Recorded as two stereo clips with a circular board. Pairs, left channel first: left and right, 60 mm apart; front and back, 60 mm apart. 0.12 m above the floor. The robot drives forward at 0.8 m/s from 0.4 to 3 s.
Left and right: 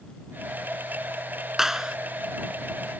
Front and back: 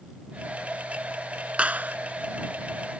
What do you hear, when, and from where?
1.6 s a clap: 160° right; by 2.0 s 170° right